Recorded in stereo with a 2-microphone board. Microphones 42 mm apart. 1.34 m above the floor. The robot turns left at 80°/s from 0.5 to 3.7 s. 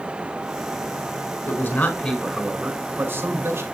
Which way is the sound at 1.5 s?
75° left.